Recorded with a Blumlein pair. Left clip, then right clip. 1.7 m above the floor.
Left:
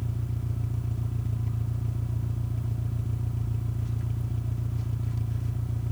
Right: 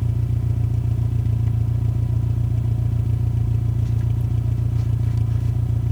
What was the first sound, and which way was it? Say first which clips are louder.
An engine running: right 8 dB; 70° right.